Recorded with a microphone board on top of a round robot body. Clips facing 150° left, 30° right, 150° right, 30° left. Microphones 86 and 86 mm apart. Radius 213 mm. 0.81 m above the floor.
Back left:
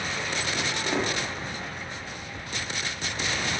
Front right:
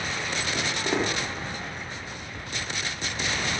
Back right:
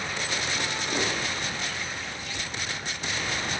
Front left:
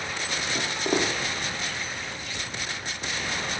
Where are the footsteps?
45° left, 4.5 m.